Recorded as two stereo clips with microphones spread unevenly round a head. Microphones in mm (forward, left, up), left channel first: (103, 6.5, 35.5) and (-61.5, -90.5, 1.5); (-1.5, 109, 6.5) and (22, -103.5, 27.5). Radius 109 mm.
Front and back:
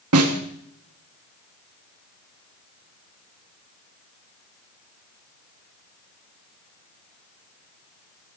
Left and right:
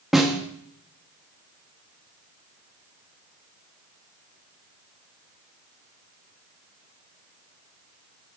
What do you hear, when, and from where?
0.1 s a snare drum: 170° right, 1.5 m